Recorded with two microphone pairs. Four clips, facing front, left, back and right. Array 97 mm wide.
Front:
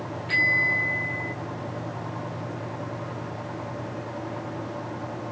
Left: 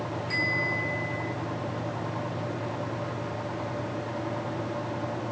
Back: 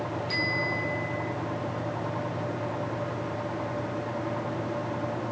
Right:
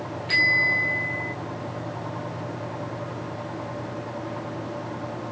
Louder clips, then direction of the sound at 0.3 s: Right 8 dB, front 8 dB; 60° right.